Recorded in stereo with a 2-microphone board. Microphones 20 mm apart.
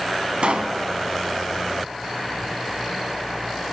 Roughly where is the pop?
Right.